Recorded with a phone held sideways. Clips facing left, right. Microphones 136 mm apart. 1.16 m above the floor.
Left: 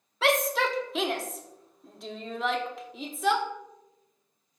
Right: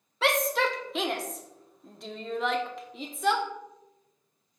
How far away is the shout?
About 0.9 m.